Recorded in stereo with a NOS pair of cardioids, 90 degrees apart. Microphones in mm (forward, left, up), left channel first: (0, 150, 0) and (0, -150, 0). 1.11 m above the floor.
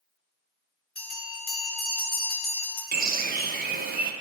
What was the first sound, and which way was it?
A bell, 30° left.